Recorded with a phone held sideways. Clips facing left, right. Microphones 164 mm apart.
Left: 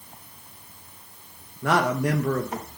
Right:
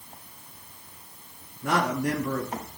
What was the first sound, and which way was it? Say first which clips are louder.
A man speaking: left 3 dB; 80° left.